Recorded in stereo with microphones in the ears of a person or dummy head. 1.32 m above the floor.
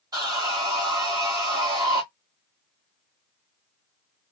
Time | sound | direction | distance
0.1 | sawing | 25° right (ahead or behind) | 1.4 m